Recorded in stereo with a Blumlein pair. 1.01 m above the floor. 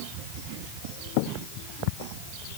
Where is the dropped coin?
I don't hear a dropped coin.